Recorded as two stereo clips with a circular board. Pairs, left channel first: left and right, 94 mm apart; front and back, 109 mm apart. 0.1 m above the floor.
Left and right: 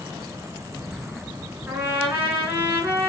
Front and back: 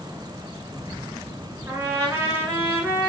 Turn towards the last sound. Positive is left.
turn(degrees=-135)